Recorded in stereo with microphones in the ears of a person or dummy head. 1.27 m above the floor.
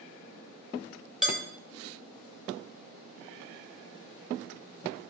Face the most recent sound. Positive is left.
turn(degrees=-5)  # may be behind; listen again after turning